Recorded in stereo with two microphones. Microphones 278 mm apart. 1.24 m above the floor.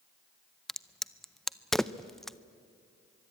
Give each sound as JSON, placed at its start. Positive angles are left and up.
{"t": 0.7, "sound": "a crack", "side_deg": 0, "distance_m": 0.5}